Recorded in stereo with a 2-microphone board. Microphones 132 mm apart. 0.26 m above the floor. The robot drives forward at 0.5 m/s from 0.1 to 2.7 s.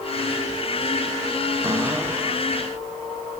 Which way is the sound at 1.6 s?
20° right (ahead or behind).